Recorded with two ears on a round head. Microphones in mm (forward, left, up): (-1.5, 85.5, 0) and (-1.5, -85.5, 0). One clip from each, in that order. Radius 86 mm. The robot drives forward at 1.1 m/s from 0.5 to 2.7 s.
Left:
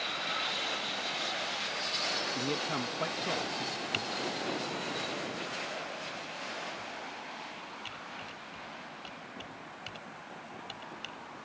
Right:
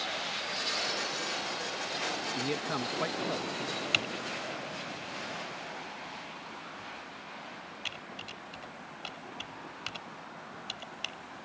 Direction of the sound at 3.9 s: 35° right (ahead or behind).